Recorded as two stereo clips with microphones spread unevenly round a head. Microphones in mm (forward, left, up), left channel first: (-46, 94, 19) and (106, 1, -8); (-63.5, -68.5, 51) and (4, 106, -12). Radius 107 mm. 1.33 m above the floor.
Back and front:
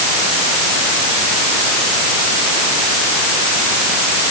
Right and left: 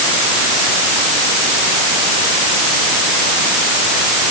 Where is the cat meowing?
I don't hear a cat meowing.